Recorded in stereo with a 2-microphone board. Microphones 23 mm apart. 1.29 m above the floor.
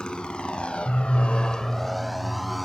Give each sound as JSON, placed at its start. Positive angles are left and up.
{"t": 0.0, "sound": "a motorcycle", "side_deg": 40}